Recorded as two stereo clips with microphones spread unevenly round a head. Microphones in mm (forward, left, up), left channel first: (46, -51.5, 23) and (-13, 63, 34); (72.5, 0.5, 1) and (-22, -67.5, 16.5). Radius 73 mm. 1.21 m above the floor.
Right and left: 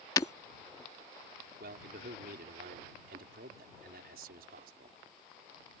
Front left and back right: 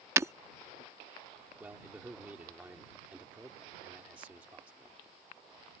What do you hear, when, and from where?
0.2 s breaking glass: 120° right
1.6 s a man speaking: 135° left